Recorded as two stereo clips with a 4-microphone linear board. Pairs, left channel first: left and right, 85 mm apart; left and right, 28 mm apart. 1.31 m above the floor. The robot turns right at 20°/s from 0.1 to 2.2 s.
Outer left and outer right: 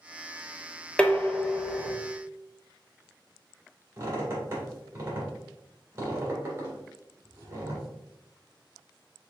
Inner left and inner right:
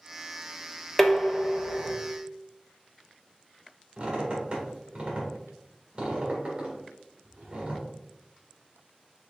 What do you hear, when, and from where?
1.0 s dishes clattering: 10° left (ahead or behind), 0.6 m; by 1.9 s 5° right (ahead or behind), 0.6 m
4.0 s a squeak: 30° right (ahead or behind), 2 m